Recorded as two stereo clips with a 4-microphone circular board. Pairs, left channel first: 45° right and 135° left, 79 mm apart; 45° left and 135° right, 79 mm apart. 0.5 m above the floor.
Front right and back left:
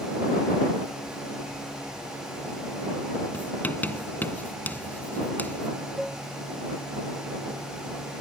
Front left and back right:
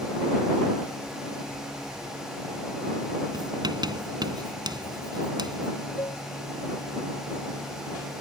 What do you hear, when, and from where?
3.3 s writing: 110° right
6.0 s dishes clattering: 50° left